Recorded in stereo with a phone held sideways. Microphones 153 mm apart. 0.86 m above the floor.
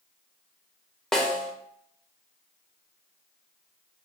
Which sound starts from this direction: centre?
A snare drum, at 1.1 s.